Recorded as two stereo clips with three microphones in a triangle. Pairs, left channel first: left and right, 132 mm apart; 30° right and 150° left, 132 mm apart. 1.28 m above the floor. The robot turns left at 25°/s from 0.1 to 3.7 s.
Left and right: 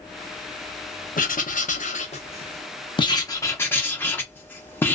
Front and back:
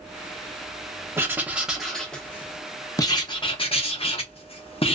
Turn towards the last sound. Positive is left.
turn(degrees=15)